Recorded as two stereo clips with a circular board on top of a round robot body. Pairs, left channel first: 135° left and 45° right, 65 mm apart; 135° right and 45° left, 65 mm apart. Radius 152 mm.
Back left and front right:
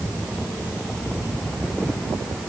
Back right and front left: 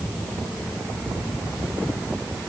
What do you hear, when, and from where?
Only background noise.